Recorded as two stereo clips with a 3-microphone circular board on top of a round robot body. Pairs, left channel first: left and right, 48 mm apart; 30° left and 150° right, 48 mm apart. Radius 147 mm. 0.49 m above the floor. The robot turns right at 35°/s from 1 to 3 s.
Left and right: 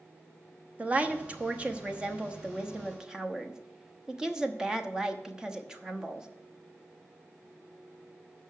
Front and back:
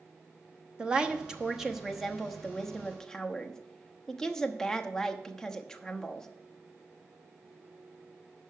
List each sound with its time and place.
0.8 s a woman speaking: 100° right, 1.2 m; by 6.3 s 30° right, 1.2 m